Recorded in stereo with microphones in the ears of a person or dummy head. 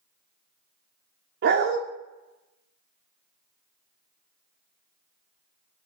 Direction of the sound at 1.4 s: 55° right (ahead or behind).